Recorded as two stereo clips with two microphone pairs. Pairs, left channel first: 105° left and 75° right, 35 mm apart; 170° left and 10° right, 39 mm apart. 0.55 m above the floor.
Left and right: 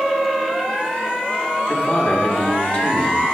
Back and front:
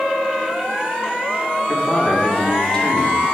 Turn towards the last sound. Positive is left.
turn(degrees=105)